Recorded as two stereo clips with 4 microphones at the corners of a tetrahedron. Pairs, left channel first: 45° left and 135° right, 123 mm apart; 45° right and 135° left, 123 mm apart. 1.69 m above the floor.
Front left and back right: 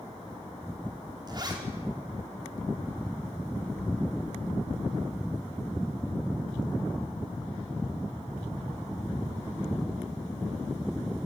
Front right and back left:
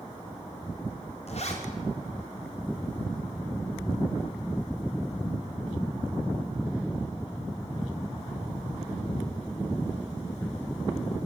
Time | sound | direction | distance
1.3 | a zipper | 80° right | 5 m